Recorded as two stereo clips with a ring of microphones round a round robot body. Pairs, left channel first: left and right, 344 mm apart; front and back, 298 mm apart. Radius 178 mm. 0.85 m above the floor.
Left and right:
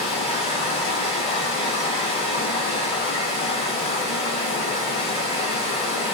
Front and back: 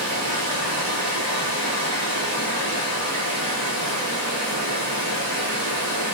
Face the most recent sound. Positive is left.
turn(degrees=165)